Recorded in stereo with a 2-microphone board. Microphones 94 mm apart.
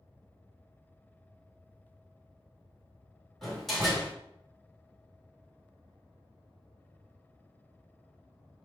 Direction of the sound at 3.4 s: Centre (ahead or behind).